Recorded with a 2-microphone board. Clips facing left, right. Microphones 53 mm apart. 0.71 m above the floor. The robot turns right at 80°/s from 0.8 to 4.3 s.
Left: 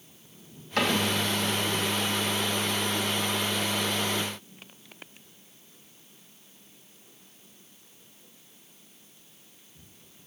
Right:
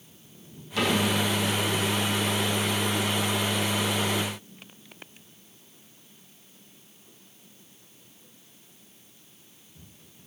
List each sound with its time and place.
0.8 s a cupboard door: 55° left (ahead or behind), 3.5 m; by 1.0 s 40° left (ahead or behind), 3.5 m